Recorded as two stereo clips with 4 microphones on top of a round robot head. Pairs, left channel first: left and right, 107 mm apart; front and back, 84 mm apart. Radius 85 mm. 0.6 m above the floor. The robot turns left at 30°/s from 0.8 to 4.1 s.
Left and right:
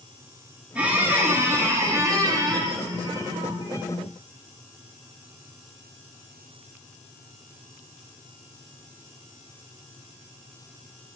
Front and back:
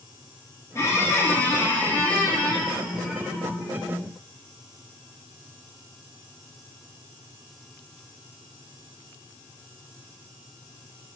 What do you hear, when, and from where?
0.8 s a squeak: 20° right, 0.6 m; by 3.9 s 115° right, 0.6 m